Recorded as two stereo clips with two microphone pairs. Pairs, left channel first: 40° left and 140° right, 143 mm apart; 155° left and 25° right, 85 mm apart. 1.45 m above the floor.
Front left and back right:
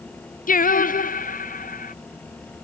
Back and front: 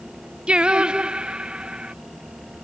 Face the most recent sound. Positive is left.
turn(degrees=55)